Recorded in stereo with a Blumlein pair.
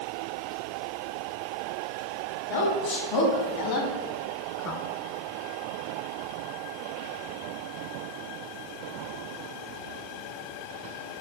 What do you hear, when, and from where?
2.5 s a woman speaking: 55° left, 3.5 m; by 4.8 s 40° left, 2 m